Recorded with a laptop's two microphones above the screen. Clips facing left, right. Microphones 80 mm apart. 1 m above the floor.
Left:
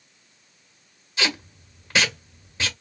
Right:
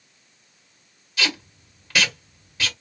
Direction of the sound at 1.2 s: 25° left (ahead or behind).